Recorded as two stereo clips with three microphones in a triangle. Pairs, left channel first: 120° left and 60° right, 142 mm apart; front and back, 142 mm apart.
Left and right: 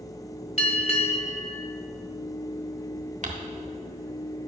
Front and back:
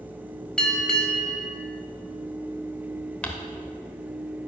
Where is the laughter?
No laughter in this recording.